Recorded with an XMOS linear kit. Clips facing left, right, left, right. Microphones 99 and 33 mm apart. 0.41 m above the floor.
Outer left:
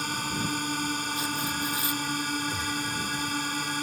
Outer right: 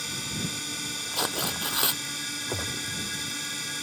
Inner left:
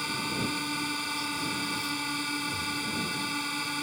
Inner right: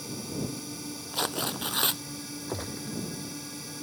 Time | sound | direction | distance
0.0 | a drone | 55° left (ahead or behind) | ?
1.1 | tearing paper | 85° right | ?
2.5 | a gunshot | 65° right (ahead or behind) | ?